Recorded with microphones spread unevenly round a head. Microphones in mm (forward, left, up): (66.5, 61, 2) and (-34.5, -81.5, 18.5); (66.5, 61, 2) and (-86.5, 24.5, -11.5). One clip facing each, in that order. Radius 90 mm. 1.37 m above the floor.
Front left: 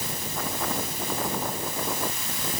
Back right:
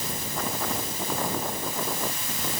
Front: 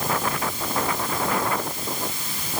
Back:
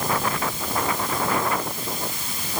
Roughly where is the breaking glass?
I don't hear breaking glass.